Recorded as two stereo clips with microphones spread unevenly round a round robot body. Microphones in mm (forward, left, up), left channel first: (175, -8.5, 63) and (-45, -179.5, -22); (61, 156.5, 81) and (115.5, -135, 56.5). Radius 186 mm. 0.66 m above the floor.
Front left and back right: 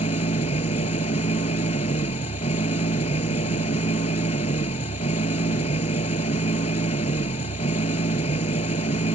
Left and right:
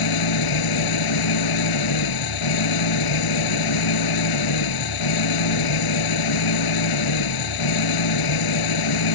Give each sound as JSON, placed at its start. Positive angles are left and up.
{"t": 0.0, "sound": "an engine running", "azimuth_deg": 110}